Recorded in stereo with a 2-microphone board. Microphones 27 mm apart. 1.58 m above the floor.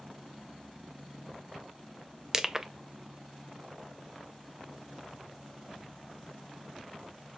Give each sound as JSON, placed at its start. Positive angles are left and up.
{"t": 2.3, "sound": "crushing", "side_deg": -20, "distance_m": 0.6}